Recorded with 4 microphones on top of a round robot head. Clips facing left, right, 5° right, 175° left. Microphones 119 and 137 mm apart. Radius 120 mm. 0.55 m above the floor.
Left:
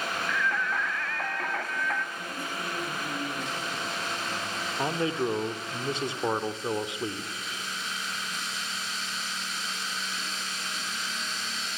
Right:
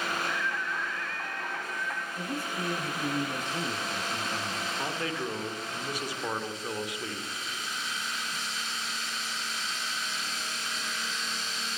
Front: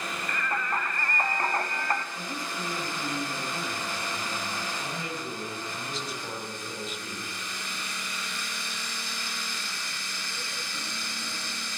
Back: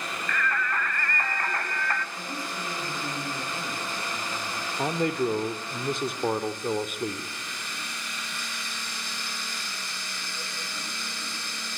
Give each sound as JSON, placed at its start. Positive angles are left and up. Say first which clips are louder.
{"t": 0.3, "sound": "singing", "louder": "left 4 dB, back 2 dB", "azimuth_deg": 65, "distance_m": 2.0}
{"t": 2.1, "sound": "a man speaking", "louder": "right 2 dB, even", "azimuth_deg": -95, "distance_m": 8.5}
{"t": 4.8, "sound": "a man speaking", "louder": "left 8 dB, back 10 dB", "azimuth_deg": 150, "distance_m": 2.5}